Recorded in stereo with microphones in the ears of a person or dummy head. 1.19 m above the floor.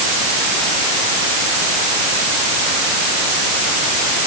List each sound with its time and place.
Only background noise.